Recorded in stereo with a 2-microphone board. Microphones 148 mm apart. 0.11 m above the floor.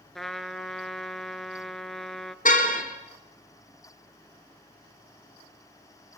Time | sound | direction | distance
0.1 | a trumpet | centre (ahead or behind) | 0.7 m
2.5 | a car horn | 55° left (ahead or behind) | 2.5 m